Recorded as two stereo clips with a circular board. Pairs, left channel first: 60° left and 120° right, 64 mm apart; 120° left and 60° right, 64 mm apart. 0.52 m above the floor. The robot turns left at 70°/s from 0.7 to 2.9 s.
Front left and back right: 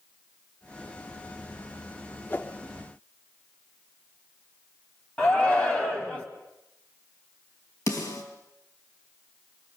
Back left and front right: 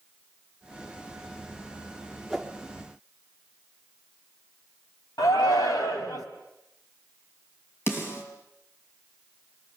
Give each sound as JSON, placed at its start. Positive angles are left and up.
{"t": 2.3, "sound": "a whoosh", "azimuth_deg": 35, "distance_m": 1.3}
{"t": 5.2, "sound": "a shout", "azimuth_deg": 125, "distance_m": 3.0}
{"t": 7.9, "sound": "a snare drum", "azimuth_deg": 75, "distance_m": 4.5}